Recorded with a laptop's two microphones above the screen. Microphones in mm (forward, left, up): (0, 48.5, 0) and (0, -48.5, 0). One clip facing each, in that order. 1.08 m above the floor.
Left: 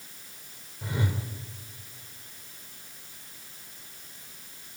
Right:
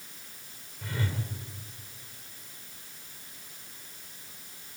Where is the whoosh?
20° left (ahead or behind), 1.8 m.